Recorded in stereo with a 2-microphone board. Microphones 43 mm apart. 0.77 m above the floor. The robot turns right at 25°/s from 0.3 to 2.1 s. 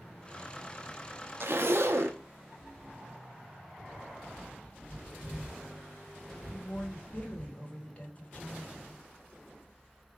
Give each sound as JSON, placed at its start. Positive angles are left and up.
{"t": 1.4, "sound": "a zipper", "side_deg": -60, "distance_m": 0.5}
{"t": 4.3, "sound": "a bird", "side_deg": 30, "distance_m": 2.0}
{"t": 6.5, "sound": "a woman speaking", "side_deg": 30, "distance_m": 1.3}